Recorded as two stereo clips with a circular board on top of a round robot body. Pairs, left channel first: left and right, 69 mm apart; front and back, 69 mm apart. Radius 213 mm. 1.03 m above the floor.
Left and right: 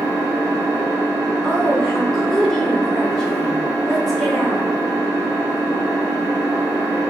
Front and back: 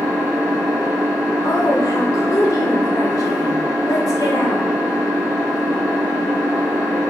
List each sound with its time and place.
0.0 s an engine running: 135° left, 1.5 m
1.4 s a woman speaking: 10° left, 1.0 m